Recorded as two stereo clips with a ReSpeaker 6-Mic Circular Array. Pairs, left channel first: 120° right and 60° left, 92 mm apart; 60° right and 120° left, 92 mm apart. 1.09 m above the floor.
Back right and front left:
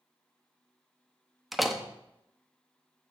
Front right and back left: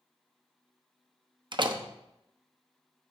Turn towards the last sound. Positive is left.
turn(degrees=150)